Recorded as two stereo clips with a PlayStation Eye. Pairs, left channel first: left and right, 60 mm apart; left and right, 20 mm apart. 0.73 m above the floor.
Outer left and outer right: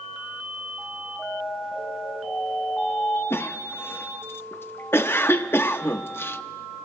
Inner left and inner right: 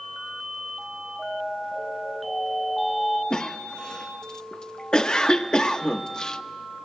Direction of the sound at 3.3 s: 40° left (ahead or behind).